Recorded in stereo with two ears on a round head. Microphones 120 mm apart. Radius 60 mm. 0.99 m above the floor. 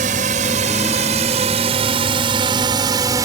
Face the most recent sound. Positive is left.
turn(degrees=-25)  # may be behind; listen again after turning